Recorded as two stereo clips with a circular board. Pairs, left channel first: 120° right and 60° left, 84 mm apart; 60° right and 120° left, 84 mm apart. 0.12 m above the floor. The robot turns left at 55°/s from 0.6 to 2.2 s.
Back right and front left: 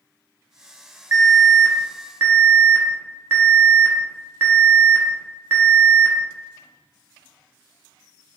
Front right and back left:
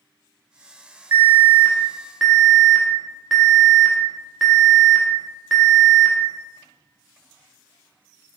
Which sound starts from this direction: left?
An alarm, at 1.1 s.